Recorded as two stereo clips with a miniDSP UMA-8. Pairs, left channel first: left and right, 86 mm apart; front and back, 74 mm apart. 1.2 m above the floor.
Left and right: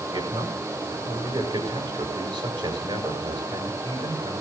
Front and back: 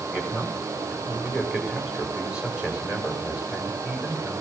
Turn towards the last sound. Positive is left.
turn(degrees=-105)